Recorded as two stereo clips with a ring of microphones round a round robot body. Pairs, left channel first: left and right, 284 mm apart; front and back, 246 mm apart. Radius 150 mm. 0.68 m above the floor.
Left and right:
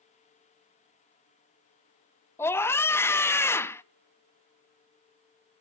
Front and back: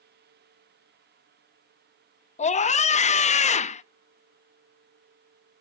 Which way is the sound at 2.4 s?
20° left.